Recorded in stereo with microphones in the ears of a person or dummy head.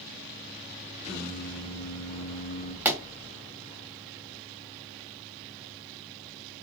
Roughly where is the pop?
Centre.